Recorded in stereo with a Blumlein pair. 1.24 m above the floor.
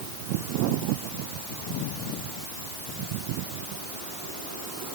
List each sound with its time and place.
Only background noise.